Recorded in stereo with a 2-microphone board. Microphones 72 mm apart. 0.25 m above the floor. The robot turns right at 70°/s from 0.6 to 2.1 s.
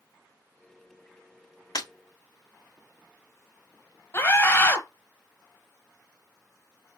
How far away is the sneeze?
I don't hear a sneeze.